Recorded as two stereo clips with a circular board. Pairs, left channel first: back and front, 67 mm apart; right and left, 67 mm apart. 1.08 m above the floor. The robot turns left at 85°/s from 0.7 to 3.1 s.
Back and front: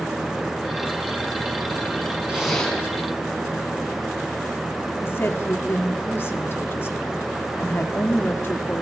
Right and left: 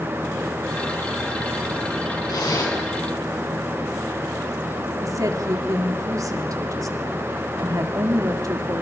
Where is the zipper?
75° right, 5.5 m; by 2.8 s 115° right, 5.5 m.